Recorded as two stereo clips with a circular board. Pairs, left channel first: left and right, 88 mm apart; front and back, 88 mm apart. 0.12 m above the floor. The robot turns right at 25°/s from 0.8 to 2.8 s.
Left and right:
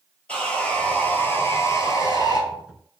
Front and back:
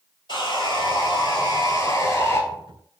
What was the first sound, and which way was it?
Sawing, 15° left.